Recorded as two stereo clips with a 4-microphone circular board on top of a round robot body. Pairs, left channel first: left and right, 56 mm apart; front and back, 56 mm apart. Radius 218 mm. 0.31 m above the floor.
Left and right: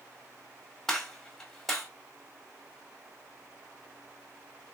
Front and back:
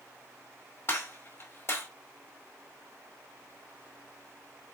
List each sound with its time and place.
0.9 s a gunshot: 10° left, 1.8 m